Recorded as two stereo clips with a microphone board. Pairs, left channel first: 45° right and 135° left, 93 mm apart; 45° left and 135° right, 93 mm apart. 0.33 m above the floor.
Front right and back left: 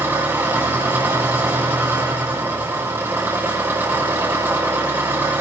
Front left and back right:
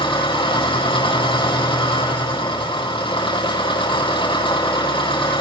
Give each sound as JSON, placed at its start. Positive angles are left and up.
{"t": 0.0, "sound": "an engine running", "azimuth_deg": 70, "distance_m": 8.5}